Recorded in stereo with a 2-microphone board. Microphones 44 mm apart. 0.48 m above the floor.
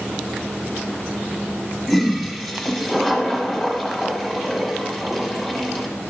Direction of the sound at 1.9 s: 10° left (ahead or behind).